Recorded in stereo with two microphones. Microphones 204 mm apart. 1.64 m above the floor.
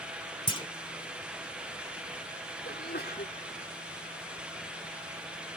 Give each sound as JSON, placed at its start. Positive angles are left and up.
{"t": 0.5, "sound": "a clunk", "side_deg": 25}
{"t": 2.6, "sound": "a sneeze", "side_deg": 55}